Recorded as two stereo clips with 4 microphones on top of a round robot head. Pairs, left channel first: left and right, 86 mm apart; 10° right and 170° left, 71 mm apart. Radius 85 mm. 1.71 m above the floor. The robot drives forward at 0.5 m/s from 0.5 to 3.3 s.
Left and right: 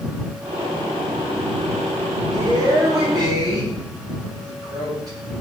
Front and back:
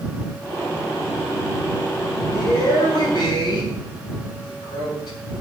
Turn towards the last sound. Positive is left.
turn(degrees=-40)